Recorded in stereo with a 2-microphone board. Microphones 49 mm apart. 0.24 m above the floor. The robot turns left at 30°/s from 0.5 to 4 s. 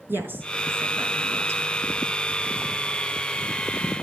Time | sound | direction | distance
0.1 | a woman speaking | 50° right (ahead or behind) | 3 m